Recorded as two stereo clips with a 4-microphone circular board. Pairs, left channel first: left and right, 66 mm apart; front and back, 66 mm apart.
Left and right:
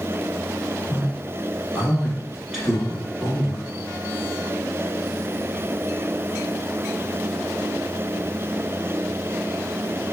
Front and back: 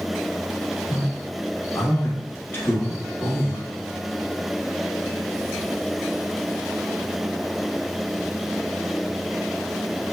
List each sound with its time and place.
0.9 s a man speaking: 5° right, 1.2 m